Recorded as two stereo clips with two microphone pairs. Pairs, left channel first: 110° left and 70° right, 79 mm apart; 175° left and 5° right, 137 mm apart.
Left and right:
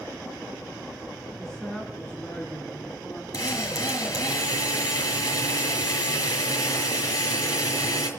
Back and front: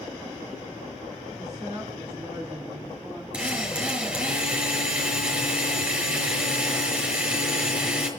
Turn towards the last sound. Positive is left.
turn(degrees=75)